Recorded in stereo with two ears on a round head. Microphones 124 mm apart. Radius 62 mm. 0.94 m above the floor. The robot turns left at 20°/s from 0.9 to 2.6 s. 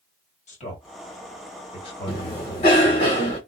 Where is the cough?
40° left (ahead or behind), 1.1 m.